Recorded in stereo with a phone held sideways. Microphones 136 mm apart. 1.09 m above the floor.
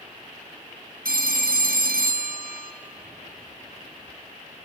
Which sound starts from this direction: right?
A phone ringing, at 1.1 s.